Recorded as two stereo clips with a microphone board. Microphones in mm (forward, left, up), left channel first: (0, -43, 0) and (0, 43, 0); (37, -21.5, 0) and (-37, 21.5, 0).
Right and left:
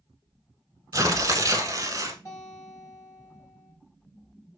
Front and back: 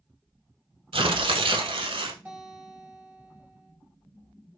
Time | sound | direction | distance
0.9 | tearing paper | 140° left | 0.7 m
2.2 | a guitar | 135° right | 3 m